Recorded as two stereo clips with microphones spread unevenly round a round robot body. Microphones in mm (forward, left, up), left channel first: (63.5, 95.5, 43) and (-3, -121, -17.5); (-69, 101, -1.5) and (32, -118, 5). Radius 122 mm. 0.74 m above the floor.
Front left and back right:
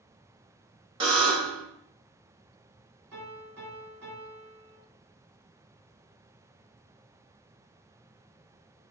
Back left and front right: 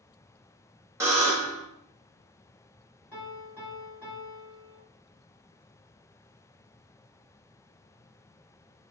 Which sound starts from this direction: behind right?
A buzzer, at 1.0 s.